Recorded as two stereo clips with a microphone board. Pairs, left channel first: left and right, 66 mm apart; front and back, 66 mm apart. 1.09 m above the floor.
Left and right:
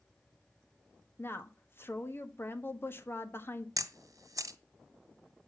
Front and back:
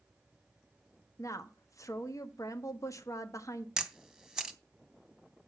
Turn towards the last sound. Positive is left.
turn(degrees=-100)